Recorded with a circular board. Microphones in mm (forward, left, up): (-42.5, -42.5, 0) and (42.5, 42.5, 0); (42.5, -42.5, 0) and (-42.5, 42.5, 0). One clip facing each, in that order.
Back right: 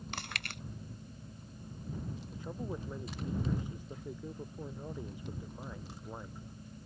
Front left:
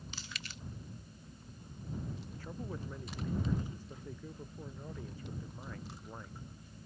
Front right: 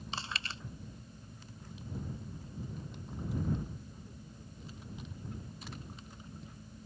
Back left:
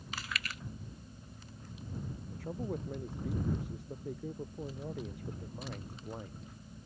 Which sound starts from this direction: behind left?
A man speaking, at 2.3 s.